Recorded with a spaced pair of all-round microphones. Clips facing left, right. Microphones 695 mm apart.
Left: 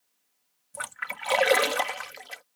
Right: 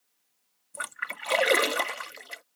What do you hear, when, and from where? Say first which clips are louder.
0.7 s a splash: left 2 dB; 25° left (ahead or behind)